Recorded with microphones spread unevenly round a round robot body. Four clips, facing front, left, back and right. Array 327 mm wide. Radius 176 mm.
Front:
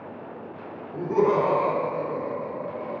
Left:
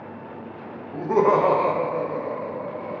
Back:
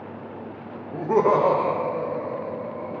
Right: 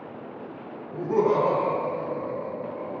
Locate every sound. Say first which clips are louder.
0.9 s laughter: left 3 dB, back 2 dB; 165° left, 0.6 m; by 2.9 s 45° left, 0.9 m